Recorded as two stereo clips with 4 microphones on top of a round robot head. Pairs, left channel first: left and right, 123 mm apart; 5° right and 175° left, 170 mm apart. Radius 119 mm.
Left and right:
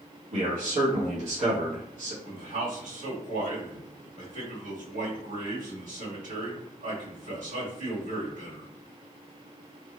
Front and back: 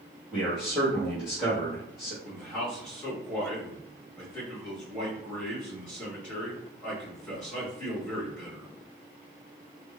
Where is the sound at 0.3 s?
95° right, 1.2 m.